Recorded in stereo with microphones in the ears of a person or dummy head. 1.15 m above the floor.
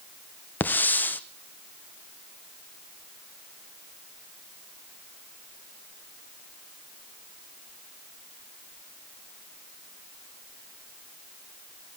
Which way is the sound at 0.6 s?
10° left (ahead or behind).